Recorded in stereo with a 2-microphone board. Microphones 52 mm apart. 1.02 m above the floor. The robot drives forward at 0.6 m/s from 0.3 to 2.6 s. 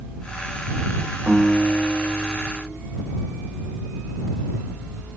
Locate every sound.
1.3 s a guitar: 25° right (ahead or behind), 2.5 m; by 2.8 s 20° right (ahead or behind), 3.5 m